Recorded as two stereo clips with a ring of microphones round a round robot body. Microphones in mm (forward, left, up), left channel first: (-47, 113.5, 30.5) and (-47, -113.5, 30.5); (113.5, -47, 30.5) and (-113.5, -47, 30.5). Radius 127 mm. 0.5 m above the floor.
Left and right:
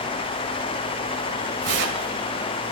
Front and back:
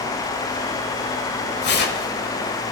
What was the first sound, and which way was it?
Tearing paper, 45° right.